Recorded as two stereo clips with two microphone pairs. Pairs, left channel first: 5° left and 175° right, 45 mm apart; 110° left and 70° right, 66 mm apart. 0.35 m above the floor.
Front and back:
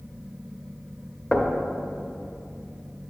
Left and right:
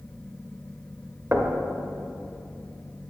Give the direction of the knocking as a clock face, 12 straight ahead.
2 o'clock.